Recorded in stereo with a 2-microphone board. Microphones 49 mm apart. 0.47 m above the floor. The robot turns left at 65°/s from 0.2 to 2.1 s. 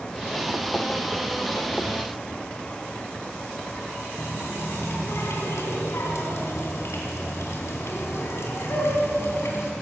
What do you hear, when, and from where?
4.2 s a running tap: 70° left (ahead or behind), 2.5 m